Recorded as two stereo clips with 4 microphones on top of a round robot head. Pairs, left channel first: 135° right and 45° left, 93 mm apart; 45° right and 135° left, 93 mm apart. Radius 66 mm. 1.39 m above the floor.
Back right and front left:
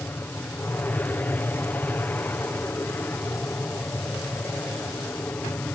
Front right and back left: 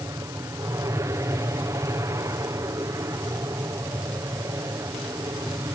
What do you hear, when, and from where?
0.0 s an aircraft: 165° left